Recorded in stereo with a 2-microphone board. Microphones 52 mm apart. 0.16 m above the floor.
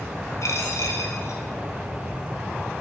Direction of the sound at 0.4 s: 70° left (ahead or behind).